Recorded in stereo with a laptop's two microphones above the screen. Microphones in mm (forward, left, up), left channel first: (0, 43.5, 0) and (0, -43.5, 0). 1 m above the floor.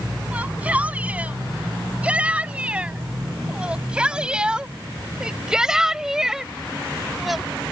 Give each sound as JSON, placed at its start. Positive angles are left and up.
{"t": 0.3, "sound": "a shout", "side_deg": -15}